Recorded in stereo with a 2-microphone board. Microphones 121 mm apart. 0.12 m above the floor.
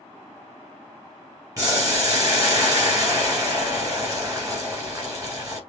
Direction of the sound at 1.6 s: 30° right (ahead or behind).